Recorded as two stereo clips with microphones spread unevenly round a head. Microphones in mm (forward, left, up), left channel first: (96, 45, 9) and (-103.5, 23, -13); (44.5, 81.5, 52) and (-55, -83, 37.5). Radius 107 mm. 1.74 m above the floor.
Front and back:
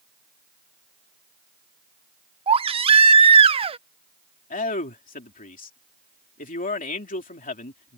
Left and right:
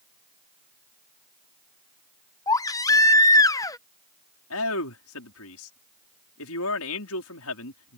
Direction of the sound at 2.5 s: 125° left.